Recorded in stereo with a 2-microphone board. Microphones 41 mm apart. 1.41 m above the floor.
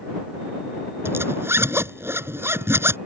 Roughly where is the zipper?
Right.